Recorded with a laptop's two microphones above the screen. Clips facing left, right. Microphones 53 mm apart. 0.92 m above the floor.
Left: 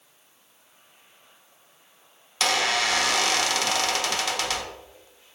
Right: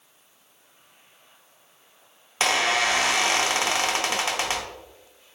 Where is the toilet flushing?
I don't hear a toilet flushing.